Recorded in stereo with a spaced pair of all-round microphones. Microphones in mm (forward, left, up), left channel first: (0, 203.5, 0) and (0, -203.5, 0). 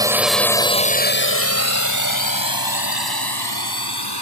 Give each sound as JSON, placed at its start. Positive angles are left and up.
{"t": 0.0, "sound": "a drone", "side_deg": -10}